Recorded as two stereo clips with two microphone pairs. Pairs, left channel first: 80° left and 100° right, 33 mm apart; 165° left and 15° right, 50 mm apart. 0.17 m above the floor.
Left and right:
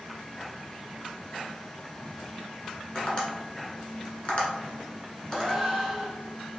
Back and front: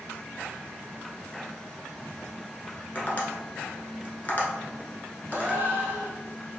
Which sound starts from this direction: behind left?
Tapping, at 3.0 s.